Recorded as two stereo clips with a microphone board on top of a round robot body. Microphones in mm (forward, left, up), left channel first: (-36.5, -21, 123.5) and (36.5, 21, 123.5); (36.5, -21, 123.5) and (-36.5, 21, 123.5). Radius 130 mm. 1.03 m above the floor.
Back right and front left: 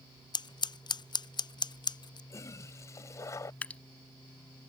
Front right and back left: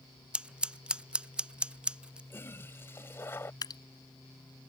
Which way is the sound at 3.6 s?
75° right.